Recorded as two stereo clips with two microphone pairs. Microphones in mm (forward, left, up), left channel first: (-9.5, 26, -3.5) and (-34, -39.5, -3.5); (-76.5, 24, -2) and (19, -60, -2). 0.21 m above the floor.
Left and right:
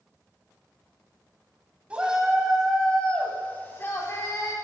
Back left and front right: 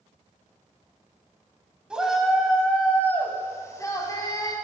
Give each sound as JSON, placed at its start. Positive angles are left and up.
{"t": 1.9, "sound": "a shout", "azimuth_deg": -110, "distance_m": 1.0}